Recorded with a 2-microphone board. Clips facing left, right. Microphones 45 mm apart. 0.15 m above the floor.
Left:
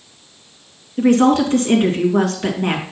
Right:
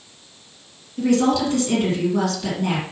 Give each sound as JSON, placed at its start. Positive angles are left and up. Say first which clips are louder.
{"t": 1.0, "sound": "a woman speaking", "louder": "left 5 dB", "side_deg": 45, "distance_m": 2.0}